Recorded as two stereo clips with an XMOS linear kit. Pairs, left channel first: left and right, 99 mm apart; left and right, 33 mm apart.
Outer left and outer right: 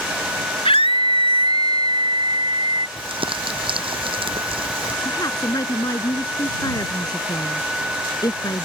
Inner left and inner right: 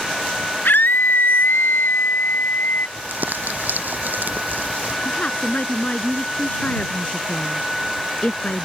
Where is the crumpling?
60° right (ahead or behind).